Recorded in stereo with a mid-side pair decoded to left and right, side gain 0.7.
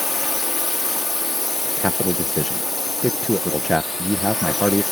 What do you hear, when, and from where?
0.0 s a drone: 15° left
1.6 s a man speaking: straight ahead